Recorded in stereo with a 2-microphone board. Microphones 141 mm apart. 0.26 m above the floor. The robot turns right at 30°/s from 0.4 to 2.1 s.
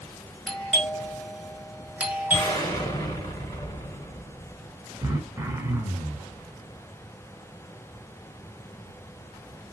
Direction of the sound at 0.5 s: 5° left (ahead or behind).